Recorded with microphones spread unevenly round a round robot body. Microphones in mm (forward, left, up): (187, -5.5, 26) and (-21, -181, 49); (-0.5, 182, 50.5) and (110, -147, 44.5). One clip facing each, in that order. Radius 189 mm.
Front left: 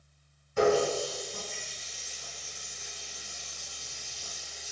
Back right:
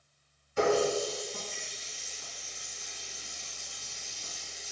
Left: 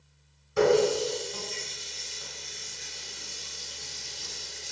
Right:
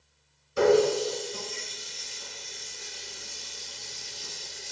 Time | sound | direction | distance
0.6 | a running tap | 80° left | 1.5 m